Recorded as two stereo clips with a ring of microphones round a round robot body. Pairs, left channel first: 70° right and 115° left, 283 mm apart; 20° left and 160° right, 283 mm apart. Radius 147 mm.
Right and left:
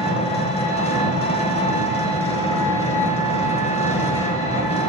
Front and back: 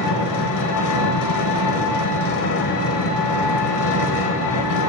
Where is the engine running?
Straight ahead, 0.7 m.